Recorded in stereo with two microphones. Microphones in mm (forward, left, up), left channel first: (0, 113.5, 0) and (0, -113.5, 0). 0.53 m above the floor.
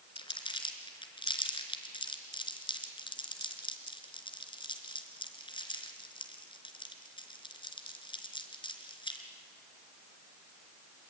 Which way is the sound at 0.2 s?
20° left (ahead or behind).